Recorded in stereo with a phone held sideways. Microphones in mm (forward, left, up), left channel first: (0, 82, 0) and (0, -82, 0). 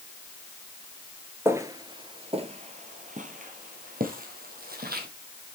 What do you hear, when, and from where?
1.4 s footsteps: 15° right (ahead or behind), 1.0 m; by 5.1 s 65° right (ahead or behind), 2.5 m